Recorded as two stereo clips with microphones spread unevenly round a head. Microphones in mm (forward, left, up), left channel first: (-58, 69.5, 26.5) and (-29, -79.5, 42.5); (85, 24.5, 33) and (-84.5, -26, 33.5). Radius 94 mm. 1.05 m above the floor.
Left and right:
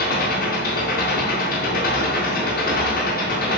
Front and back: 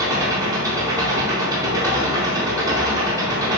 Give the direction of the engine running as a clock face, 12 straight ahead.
8 o'clock.